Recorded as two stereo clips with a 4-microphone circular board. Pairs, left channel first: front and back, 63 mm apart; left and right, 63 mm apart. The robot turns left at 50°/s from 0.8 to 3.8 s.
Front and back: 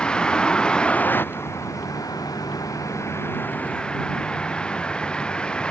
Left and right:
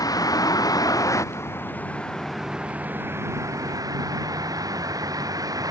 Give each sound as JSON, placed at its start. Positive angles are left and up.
{"t": 0.0, "sound": "a vehicle", "azimuth_deg": 75}